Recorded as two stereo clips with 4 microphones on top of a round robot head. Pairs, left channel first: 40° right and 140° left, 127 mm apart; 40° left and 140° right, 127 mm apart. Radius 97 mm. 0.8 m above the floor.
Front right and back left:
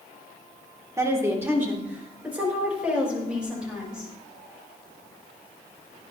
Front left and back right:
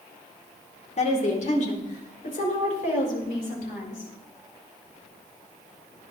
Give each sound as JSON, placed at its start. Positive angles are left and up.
{"t": 1.0, "sound": "a woman speaking", "azimuth_deg": 70, "distance_m": 2.5}